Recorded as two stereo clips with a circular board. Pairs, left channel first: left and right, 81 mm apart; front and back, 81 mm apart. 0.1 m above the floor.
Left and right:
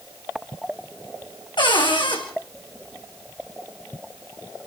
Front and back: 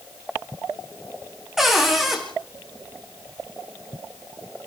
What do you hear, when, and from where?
1.6 s a cupboard door: 95° left, 4.5 m